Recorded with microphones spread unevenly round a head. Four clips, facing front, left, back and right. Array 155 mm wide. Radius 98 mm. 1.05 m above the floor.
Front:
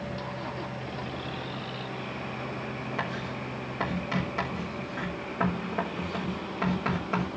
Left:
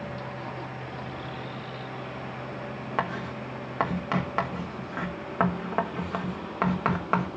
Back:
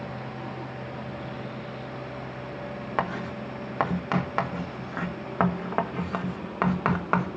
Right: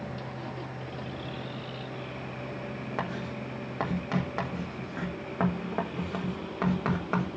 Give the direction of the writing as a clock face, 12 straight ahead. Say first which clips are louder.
Left 5 dB, back 8 dB; 4 o'clock.